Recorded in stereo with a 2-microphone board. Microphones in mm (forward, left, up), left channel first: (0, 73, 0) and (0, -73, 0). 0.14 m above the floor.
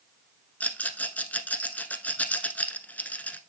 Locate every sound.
0.6 s a rattle: 10° left (ahead or behind), 0.9 m